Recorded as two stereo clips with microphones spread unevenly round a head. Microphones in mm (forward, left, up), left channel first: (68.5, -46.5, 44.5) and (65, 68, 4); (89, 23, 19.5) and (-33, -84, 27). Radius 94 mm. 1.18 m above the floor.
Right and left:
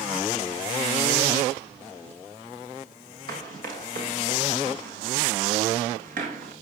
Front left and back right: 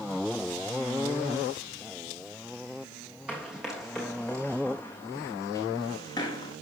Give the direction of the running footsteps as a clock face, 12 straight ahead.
7 o'clock.